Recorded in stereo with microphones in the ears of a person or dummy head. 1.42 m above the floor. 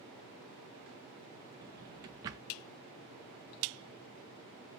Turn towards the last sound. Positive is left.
turn(degrees=-20)  # may be behind; listen again after turning